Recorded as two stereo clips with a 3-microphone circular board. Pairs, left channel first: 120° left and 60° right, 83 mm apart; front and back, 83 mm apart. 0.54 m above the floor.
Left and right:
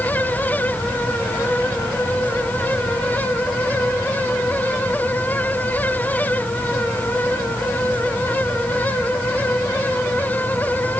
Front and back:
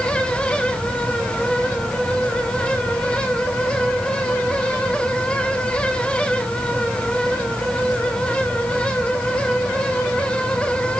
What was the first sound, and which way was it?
Only background noise.